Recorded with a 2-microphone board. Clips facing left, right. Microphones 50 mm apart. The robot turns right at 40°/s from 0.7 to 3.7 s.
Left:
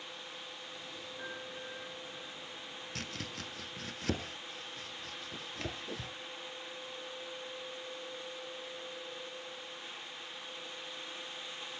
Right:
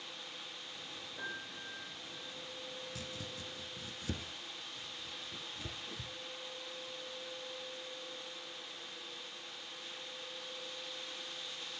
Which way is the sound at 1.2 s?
40° right (ahead or behind).